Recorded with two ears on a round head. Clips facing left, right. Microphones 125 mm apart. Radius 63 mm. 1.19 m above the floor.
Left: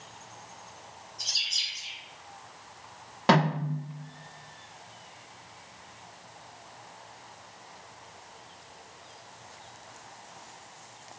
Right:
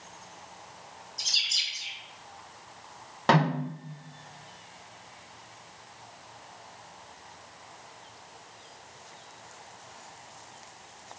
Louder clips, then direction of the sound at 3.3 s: Even; 5° left (ahead or behind).